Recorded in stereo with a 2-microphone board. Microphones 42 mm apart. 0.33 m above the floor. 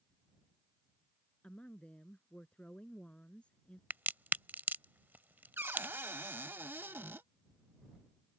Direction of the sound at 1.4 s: 30° left (ahead or behind).